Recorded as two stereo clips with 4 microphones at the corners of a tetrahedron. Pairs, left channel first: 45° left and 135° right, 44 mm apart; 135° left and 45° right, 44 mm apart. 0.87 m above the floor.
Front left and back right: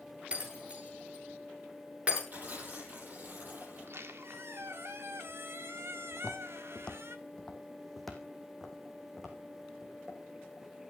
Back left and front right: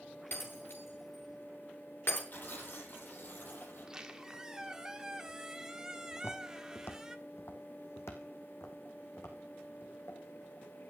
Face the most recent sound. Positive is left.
turn(degrees=150)